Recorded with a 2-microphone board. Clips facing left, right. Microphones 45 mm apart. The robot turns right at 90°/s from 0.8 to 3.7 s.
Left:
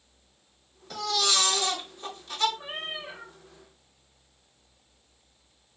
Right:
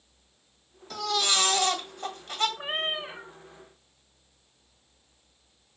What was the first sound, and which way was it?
A baby crying, 170° left.